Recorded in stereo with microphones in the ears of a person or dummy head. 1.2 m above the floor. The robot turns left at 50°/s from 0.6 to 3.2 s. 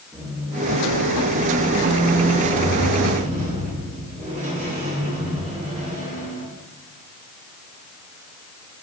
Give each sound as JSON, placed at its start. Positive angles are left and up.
{"t": 0.1, "sound": "a squeak", "azimuth_deg": 0, "distance_m": 1.1}